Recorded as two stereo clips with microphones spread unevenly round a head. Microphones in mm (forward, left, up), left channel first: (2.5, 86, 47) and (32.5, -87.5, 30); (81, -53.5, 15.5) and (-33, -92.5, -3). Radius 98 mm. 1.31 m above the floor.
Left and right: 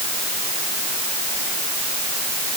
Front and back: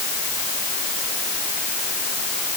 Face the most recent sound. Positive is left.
No sound to turn to.